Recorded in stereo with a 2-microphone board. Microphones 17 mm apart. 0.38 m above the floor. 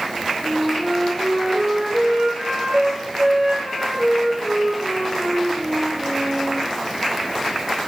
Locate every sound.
0.4 s a flute: 70° right (ahead or behind), 7.5 m